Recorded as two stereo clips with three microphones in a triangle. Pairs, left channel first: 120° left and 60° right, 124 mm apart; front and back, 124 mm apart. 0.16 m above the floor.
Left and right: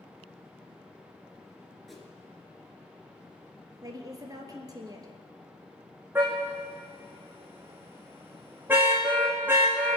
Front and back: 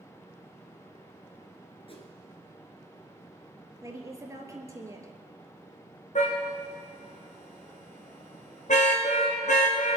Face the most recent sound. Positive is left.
turn(degrees=15)